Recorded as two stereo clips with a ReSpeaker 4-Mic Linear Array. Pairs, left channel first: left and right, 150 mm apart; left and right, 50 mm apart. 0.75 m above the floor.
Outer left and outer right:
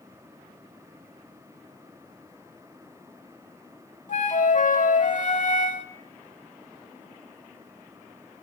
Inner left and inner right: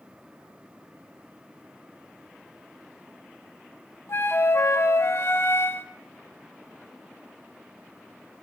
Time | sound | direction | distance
4.1 | a flute | 60° left (ahead or behind) | 1.0 m